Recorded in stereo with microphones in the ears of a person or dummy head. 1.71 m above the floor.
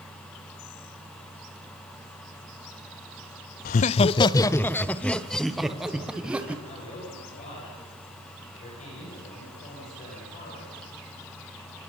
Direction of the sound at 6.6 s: 45° left (ahead or behind).